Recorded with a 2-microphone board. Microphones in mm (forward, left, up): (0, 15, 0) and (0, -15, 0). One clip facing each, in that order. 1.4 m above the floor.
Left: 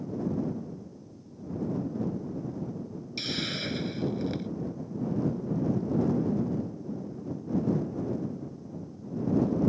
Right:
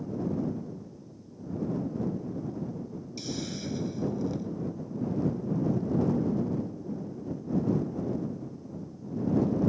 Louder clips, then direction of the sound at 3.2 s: Left 4 dB; 60° left (ahead or behind).